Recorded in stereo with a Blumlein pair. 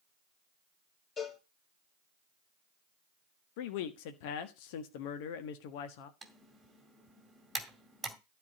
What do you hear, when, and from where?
1.2 s a cowbell: 25° left, 8.5 m
3.6 s a man speaking: 45° left, 1.3 m
6.2 s typing on a keyboard: 10° right, 2 m